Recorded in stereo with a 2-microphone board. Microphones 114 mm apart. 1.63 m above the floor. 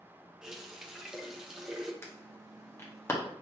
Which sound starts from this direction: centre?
A running tap, at 0.4 s.